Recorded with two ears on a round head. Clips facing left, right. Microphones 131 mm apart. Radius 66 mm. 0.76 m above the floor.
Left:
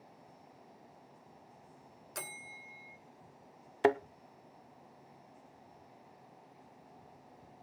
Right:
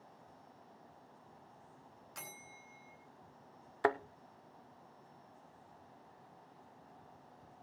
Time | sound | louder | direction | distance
2.1 | a bell | left 6 dB | 60° left (ahead or behind) | 2.5 m
3.8 | a thud | left 5 dB | 25° left (ahead or behind) | 0.5 m